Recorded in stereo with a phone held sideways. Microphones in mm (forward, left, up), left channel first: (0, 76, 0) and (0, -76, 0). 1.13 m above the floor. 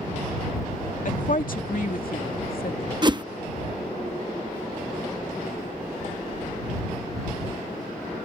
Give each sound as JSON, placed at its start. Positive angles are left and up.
{"t": 1.1, "sound": "a woman speaking", "side_deg": 60}
{"t": 3.0, "sound": "a whoosh", "side_deg": -30}